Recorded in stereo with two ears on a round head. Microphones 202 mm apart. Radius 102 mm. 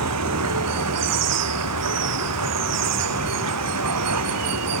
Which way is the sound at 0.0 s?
90° right.